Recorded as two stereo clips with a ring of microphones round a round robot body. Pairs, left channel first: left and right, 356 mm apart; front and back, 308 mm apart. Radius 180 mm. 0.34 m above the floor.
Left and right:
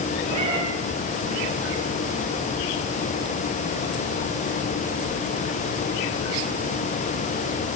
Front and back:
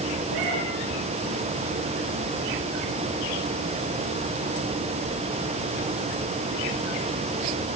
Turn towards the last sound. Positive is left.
turn(degrees=-165)